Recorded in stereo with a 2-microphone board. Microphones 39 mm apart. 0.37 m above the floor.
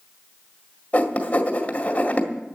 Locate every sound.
0.9 s writing: 40° left (ahead or behind), 1.9 m